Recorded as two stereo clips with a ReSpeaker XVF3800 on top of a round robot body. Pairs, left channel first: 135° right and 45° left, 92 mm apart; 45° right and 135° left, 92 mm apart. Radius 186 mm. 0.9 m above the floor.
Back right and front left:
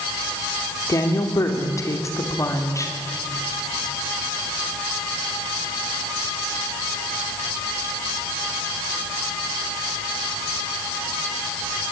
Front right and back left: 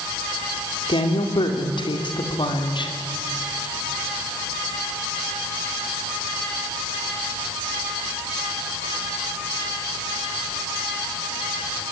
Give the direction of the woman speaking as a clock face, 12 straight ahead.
3 o'clock.